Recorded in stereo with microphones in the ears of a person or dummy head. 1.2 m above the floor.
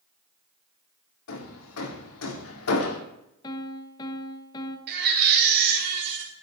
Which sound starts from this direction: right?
A baby crying, at 4.9 s.